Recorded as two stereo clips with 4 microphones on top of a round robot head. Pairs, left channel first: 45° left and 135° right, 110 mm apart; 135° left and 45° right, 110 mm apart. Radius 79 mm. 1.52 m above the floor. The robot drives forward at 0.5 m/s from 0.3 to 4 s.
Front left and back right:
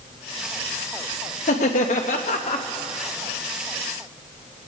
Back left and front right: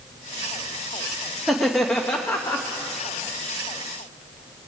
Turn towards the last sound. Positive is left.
turn(degrees=130)